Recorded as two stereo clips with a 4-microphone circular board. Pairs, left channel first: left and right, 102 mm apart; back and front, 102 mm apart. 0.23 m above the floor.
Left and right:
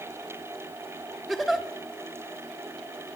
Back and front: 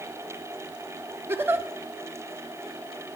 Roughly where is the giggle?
Ahead.